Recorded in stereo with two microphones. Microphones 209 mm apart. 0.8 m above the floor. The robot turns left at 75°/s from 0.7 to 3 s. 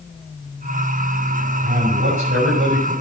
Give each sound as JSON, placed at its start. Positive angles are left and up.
{"t": 1.6, "sound": "a man speaking", "azimuth_deg": -35, "distance_m": 5.5}